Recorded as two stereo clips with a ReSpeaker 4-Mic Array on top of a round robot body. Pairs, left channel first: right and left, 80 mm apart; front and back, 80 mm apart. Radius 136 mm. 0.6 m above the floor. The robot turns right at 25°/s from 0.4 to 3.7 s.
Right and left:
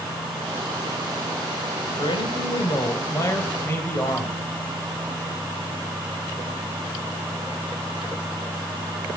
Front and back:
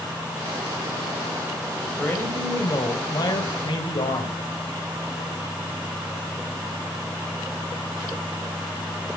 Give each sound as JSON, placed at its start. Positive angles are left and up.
{"t": 2.0, "sound": "a man speaking", "azimuth_deg": -70, "distance_m": 3.5}